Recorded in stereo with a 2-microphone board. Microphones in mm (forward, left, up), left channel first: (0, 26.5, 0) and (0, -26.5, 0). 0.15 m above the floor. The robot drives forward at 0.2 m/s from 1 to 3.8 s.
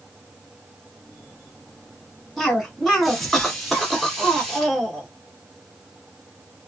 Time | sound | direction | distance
2.4 | a cough | 5° left (ahead or behind) | 1.2 m